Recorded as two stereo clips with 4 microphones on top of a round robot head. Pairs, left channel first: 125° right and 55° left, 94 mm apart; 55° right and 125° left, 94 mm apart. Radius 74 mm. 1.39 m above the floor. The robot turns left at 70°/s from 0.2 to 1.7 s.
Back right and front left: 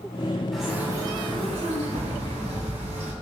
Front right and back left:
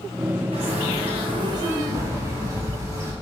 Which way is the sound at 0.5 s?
150° left.